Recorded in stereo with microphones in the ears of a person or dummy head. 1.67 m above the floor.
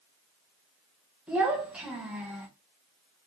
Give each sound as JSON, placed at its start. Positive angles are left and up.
{"t": 1.3, "sound": "a child speaking", "side_deg": 0, "distance_m": 1.2}